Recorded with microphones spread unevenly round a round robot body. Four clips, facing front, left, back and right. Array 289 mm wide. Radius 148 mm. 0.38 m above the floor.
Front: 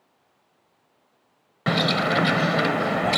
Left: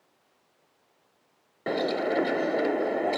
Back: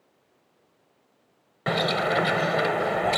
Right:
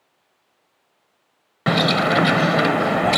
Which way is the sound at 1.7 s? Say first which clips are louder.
Right 8 dB, front 2 dB; 70° right.